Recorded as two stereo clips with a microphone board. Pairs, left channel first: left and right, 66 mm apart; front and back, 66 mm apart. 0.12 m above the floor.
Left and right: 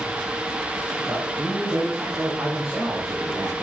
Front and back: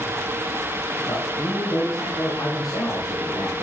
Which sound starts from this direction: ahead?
A man speaking, at 1.1 s.